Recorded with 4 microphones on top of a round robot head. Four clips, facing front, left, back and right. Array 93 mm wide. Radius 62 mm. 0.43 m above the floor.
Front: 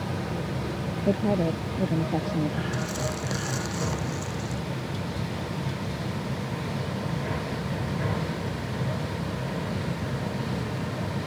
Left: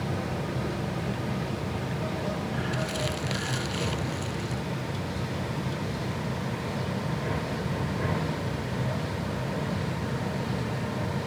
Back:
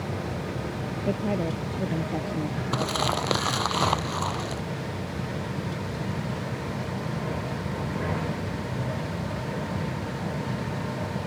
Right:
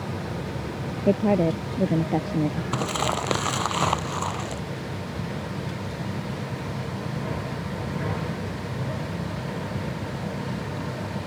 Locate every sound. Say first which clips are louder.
1.1 s a woman speaking: right 11 dB, front 3 dB; 75° right
2.7 s crumpling: right 5 dB, back 4 dB; 130° right